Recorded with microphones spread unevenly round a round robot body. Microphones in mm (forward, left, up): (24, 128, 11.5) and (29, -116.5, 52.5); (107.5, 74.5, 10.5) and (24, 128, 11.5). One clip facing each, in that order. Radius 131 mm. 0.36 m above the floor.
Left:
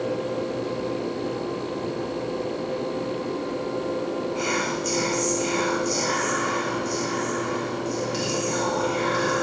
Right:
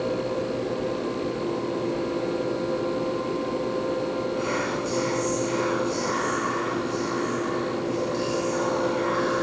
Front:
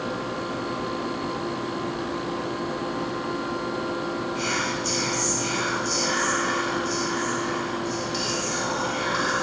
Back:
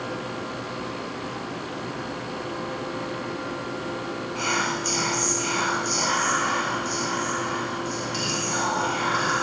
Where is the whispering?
115° left, 1.8 m.